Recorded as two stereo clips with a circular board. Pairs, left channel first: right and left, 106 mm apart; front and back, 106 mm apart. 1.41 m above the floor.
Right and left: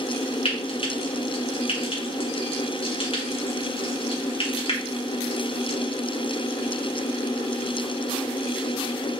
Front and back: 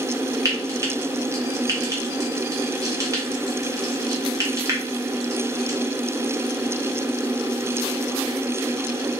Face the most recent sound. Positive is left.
turn(degrees=-120)